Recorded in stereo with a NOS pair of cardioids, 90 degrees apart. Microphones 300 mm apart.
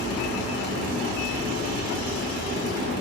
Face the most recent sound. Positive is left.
turn(degrees=50)